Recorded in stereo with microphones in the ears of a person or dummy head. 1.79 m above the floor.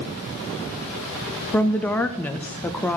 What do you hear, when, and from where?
1.5 s a woman speaking: 10° left (ahead or behind), 0.6 m